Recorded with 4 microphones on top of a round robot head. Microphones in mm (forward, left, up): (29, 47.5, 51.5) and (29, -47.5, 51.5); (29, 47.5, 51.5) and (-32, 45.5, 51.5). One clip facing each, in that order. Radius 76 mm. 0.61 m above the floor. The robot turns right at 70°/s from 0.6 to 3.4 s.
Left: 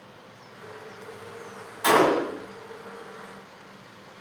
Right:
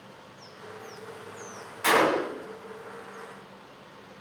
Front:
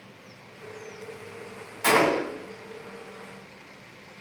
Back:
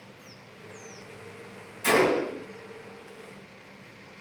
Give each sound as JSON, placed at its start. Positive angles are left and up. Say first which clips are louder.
{"t": 1.8, "sound": "a gunshot", "louder": "left 3 dB, front 1 dB", "azimuth_deg": 20, "distance_m": 1.6}